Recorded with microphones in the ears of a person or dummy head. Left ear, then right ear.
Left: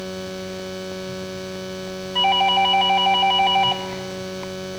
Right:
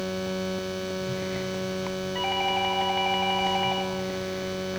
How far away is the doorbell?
About 3 m.